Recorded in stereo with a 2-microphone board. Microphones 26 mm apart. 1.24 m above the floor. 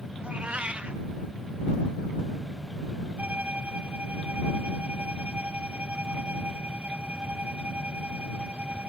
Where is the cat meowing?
55° right (ahead or behind).